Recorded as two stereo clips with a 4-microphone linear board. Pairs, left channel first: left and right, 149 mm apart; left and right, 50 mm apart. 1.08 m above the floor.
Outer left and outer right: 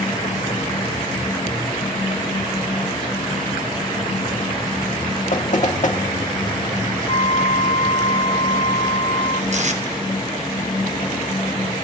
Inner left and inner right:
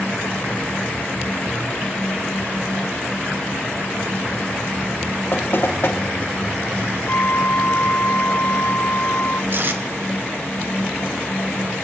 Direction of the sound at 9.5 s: 50° right (ahead or behind).